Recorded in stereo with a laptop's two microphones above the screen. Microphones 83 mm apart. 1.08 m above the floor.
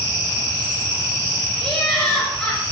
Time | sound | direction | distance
1.6 | laughter | 10° left (ahead or behind) | 6.5 m